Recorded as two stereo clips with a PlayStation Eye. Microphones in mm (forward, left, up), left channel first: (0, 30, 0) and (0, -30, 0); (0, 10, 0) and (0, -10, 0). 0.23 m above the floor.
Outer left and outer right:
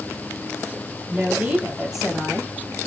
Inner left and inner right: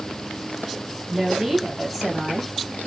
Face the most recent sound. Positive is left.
turn(degrees=15)  # may be behind; listen again after turning